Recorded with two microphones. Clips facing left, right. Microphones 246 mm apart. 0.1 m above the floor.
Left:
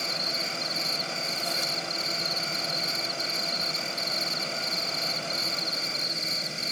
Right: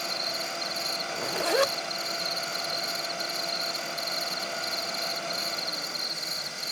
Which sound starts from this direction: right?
A zipper, at 1.1 s.